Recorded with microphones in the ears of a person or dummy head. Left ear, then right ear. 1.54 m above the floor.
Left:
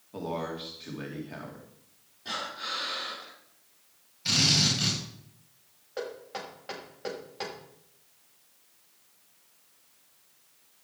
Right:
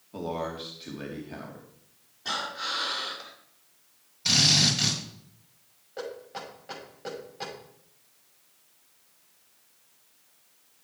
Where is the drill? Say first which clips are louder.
Right 3 dB; 20° right (ahead or behind), 5.5 m.